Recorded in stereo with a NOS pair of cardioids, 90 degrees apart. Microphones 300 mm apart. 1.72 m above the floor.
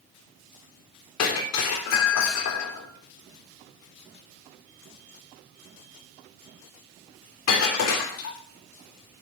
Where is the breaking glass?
65° left, 3.5 m.